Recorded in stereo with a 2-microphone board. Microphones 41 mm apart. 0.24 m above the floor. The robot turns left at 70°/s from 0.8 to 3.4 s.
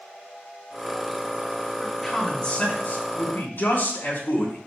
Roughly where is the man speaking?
Behind.